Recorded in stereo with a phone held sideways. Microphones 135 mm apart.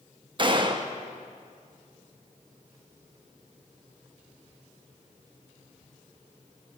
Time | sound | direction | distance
0.4 | a gunshot | 35° right (ahead or behind) | 0.5 m